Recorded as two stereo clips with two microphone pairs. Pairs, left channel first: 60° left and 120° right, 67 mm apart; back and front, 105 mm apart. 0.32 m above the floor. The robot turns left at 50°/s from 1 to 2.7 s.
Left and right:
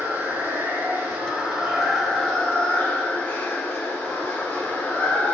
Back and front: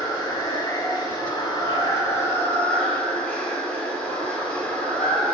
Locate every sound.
0.0 s running water: 160° right, 0.8 m; by 5.3 s 115° left, 0.8 m